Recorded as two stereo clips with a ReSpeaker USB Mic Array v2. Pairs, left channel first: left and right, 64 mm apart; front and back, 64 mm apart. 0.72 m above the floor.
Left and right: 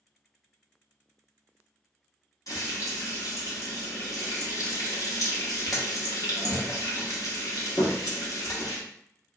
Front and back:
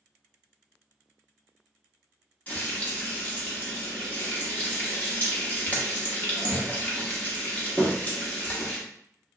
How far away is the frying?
About 1.0 m.